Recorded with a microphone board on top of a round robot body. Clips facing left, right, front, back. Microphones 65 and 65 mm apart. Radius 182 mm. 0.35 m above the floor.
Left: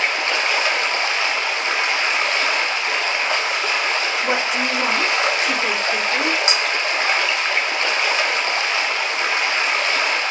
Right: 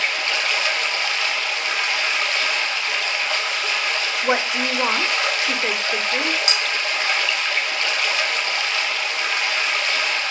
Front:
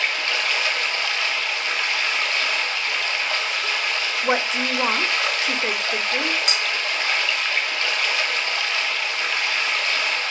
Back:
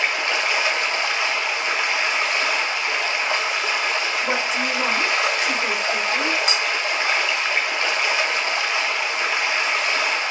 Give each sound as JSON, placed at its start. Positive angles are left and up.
{"t": 0.0, "sound": "running water", "azimuth_deg": 130, "distance_m": 1.2}
{"t": 4.2, "sound": "a woman speaking", "azimuth_deg": -40, "distance_m": 1.3}
{"t": 6.5, "sound": "cutlery clinking", "azimuth_deg": 30, "distance_m": 2.5}